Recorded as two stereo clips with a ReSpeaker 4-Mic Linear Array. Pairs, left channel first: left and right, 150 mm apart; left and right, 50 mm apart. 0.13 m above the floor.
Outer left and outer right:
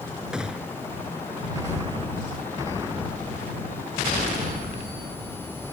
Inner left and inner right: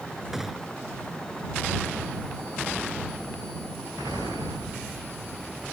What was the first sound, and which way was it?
A gunshot, 5° right (ahead or behind).